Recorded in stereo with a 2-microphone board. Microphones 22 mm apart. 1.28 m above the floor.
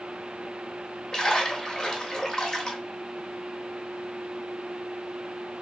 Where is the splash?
25° left (ahead or behind), 1.1 m.